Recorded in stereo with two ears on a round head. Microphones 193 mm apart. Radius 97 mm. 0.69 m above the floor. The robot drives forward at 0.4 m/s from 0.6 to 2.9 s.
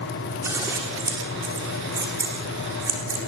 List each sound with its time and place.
0.4 s scissors: 10° right (ahead or behind), 9.5 m